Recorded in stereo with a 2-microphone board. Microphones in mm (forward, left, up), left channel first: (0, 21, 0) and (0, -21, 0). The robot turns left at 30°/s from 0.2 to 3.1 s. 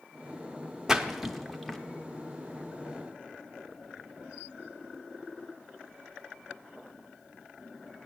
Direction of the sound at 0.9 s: 15° right (ahead or behind).